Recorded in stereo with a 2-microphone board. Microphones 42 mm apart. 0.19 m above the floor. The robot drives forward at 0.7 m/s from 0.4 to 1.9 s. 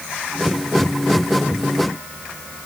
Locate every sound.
Only background noise.